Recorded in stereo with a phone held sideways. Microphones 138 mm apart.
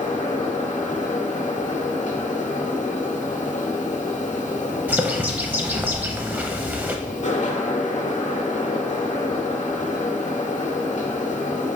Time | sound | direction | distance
0.0 | a fan | 60° left (ahead or behind) | 0.8 m
4.9 | a bird | 10° right (ahead or behind) | 0.5 m